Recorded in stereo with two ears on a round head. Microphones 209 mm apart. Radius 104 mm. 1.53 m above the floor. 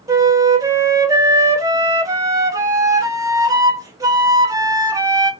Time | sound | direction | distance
0.1 | a flute | 15° right (ahead or behind) | 0.5 m